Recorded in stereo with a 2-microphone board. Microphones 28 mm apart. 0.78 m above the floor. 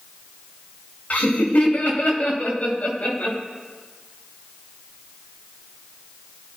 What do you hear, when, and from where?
1.1 s laughter: 70° left (ahead or behind), 5 m; by 3.4 s 50° left (ahead or behind), 5.5 m